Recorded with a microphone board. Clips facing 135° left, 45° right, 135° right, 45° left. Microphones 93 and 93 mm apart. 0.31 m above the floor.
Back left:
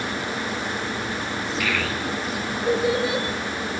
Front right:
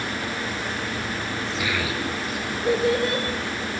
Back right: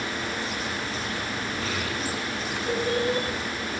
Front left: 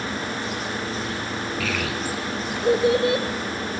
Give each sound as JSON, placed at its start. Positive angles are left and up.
{"t": 1.6, "sound": "a child speaking", "azimuth_deg": 30, "distance_m": 3.0}